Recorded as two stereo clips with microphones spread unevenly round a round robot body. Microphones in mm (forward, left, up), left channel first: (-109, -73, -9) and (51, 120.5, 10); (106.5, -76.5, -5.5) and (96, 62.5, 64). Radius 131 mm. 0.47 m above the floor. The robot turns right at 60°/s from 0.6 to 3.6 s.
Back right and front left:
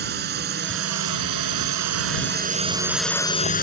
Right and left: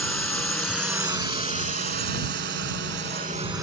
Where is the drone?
5° right; by 3.6 s 175° left.